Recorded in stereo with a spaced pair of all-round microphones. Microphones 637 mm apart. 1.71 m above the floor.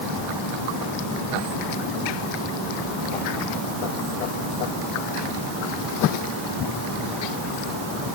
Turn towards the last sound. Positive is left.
No sound to turn to.